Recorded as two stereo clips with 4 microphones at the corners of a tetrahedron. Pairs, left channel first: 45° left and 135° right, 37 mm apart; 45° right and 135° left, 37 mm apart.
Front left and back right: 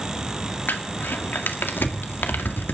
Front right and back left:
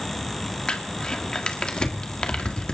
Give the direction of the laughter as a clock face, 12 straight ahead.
I don't hear laughter.